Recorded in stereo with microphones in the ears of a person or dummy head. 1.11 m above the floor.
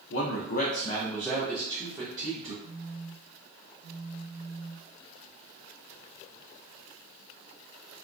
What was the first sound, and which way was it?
A man speaking, 70° left (ahead or behind).